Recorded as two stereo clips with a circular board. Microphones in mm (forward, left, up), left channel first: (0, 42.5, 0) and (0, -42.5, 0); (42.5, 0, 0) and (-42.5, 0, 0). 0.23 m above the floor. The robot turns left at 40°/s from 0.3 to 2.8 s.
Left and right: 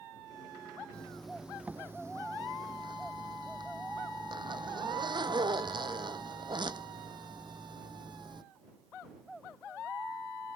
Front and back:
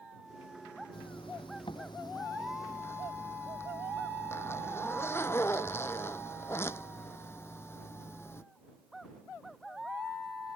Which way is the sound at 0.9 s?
15° left.